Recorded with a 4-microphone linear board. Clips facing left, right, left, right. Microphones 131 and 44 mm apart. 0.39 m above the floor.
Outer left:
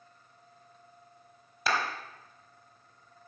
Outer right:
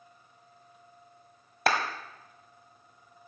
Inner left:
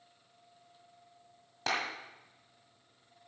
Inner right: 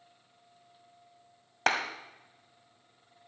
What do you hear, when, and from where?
1.7 s a clap: 60° right (ahead or behind), 1.6 m